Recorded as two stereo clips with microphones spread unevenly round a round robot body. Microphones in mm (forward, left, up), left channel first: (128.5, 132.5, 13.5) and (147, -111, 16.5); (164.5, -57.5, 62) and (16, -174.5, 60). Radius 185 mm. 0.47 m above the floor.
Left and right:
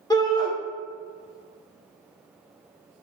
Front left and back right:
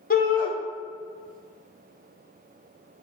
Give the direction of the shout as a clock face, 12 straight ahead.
11 o'clock.